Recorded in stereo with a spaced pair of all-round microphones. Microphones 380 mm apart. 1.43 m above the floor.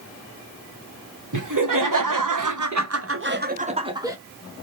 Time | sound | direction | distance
1.3 | laughter | 60° right (ahead or behind) | 1.0 m